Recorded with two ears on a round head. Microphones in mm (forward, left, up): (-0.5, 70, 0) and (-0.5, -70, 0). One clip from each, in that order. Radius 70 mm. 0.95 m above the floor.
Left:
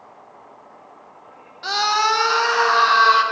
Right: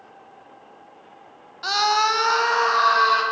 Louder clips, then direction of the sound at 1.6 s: Left 1 dB; 15° right (ahead or behind).